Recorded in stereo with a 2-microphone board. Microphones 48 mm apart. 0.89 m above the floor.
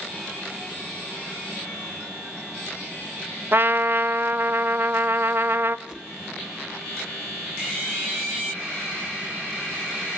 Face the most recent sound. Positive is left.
turn(degrees=-20)  # may be behind; listen again after turning